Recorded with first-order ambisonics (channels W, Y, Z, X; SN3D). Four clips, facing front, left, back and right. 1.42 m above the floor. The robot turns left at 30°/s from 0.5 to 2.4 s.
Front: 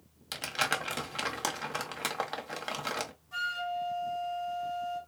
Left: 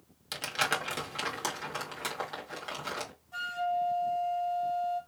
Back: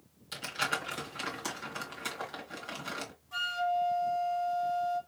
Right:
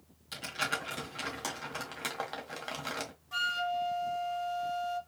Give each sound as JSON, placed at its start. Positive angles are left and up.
{"t": 0.3, "sound": "crumpling", "azimuth_deg": 40, "distance_m": 1.9}
{"t": 3.3, "sound": "a flute", "azimuth_deg": -95, "distance_m": 2.0}